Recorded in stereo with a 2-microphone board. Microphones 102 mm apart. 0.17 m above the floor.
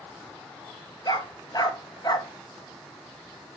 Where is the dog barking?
40° left (ahead or behind), 1.3 m.